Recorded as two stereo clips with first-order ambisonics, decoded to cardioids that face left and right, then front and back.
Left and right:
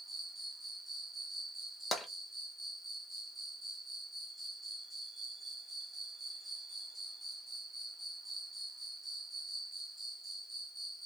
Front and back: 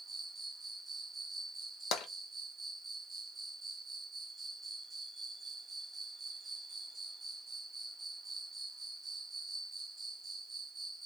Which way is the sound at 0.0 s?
150° right.